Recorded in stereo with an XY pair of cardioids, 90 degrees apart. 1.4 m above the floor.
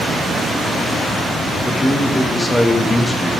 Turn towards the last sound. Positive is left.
turn(degrees=20)